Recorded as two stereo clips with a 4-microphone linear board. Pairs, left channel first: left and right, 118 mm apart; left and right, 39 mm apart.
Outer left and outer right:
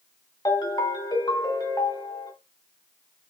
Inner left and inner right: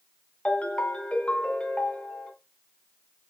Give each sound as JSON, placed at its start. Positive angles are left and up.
{"t": 0.5, "sound": "a ringtone", "side_deg": 30, "distance_m": 1.0}